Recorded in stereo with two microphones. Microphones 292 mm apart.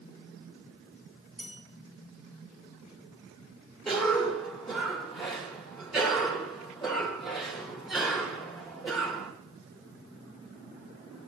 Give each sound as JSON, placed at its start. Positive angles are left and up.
{"t": 1.4, "sound": "a bell", "side_deg": -60, "distance_m": 6.5}
{"t": 3.9, "sound": "a cough", "side_deg": 0, "distance_m": 4.0}